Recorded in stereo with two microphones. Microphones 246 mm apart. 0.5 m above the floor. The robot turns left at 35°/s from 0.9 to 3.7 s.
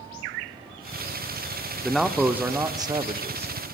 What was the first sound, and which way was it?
A man speaking, 5° left.